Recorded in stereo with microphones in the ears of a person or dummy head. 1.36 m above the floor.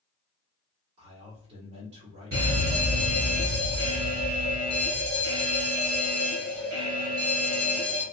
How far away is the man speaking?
About 1.6 m.